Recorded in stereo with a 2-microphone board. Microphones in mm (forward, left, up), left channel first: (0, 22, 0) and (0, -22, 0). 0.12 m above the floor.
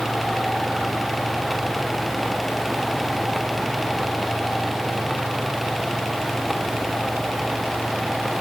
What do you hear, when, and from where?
Only background noise.